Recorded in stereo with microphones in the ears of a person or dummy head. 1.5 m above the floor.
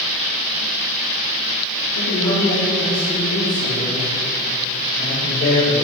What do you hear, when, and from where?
1.9 s a man speaking: 75° left (ahead or behind), 2.5 m; by 5.7 s 65° left (ahead or behind), 5 m